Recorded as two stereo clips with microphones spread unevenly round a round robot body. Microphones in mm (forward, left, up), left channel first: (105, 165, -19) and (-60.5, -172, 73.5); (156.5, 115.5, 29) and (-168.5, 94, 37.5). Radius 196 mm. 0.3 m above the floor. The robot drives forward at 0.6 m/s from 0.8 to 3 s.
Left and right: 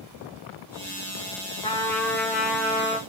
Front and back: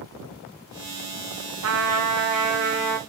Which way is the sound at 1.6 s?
145° left.